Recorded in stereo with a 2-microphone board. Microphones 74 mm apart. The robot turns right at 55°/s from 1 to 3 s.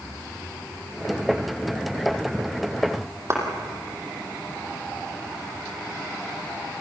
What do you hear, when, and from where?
3.3 s a clap: 35° right (ahead or behind), 3.5 m